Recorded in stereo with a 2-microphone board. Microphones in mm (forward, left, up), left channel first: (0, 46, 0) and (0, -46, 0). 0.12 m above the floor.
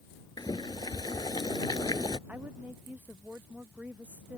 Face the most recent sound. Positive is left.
turn(degrees=-20)  # may be behind; listen again after turning